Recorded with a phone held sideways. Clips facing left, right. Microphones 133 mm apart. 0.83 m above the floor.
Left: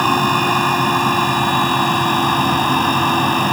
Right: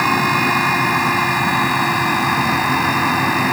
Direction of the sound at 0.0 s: 10° left (ahead or behind).